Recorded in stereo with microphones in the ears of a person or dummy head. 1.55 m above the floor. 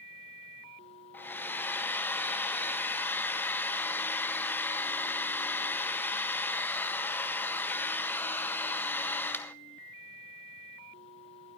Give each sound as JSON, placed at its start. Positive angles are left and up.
{"t": 1.1, "sound": "a hair dryer", "side_deg": 15, "distance_m": 0.8}